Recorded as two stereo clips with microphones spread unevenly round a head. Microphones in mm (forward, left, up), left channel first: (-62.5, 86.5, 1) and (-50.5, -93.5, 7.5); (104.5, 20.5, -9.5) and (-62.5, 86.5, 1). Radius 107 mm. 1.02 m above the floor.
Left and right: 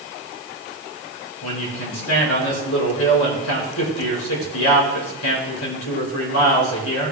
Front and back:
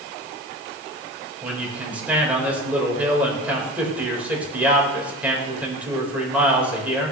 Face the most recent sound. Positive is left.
turn(degrees=75)